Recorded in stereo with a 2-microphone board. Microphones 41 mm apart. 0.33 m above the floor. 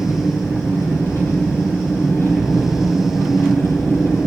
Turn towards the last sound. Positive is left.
turn(degrees=80)